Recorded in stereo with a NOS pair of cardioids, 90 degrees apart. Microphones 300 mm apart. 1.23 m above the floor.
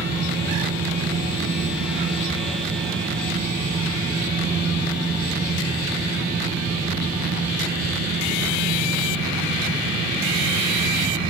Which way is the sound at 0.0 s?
30° right.